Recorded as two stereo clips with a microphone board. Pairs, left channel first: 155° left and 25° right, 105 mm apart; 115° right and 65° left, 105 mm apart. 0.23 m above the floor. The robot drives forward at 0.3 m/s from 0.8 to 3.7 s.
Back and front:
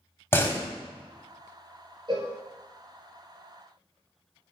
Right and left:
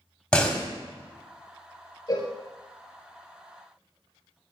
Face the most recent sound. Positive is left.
turn(degrees=-80)